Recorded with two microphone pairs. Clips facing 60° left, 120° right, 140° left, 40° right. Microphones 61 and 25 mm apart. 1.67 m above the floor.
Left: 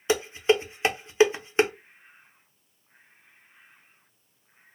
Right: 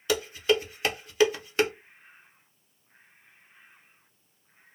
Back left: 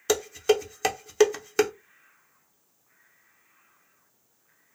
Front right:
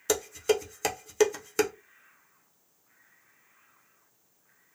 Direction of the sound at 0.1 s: 75° left.